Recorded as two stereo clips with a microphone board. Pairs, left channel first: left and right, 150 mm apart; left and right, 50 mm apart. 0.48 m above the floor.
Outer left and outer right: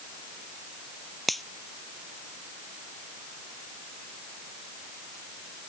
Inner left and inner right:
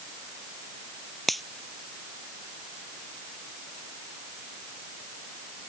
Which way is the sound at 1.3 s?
Centre (ahead or behind).